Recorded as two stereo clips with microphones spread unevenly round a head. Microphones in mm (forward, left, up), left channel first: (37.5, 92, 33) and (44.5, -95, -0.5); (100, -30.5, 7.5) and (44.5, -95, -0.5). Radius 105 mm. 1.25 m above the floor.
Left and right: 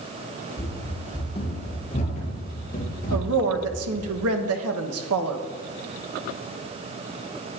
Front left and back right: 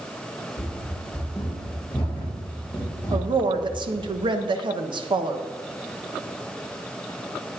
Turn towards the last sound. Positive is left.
turn(degrees=-100)